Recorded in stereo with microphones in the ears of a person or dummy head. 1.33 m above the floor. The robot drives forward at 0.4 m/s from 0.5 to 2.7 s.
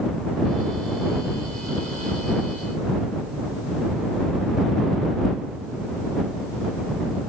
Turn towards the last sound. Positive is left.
No sound to turn to.